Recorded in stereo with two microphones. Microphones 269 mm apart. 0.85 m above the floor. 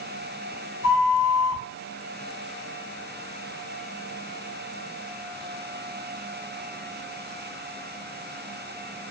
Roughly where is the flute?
Left.